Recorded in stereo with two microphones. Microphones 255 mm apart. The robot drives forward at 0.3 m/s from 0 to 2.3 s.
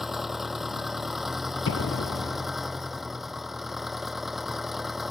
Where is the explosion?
70° left (ahead or behind); by 2.5 s 50° left (ahead or behind).